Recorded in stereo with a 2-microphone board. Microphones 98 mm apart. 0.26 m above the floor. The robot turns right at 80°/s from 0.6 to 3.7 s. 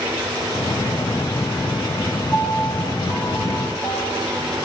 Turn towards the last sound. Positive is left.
turn(degrees=120)